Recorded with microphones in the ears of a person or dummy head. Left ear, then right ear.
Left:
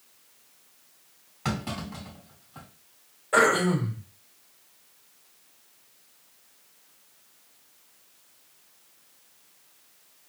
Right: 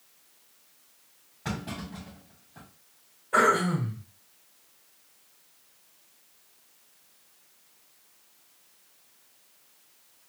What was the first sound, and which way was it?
A clunk, 70° left (ahead or behind).